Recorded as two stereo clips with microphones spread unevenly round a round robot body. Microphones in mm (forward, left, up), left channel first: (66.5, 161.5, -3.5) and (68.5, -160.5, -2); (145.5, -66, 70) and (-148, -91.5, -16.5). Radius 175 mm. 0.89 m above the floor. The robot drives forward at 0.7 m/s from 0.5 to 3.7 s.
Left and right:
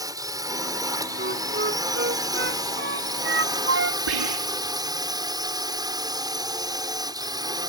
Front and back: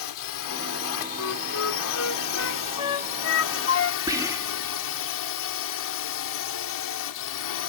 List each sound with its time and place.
0.0 s a drone: 10° right
1.2 s a flute: 30° right; by 4.0 s 35° right
4.1 s whispering: 100° right